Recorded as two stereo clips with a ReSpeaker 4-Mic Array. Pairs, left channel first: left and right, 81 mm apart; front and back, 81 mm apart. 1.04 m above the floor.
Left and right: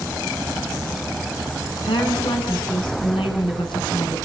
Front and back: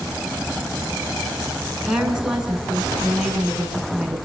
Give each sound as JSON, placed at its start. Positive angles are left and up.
{"t": 1.8, "sound": "a woman speaking", "azimuth_deg": 95, "distance_m": 9.5}